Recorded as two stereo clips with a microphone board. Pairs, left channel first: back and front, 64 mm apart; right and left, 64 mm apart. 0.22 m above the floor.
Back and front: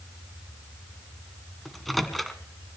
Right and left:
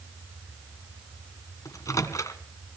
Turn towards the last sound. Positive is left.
turn(degrees=-90)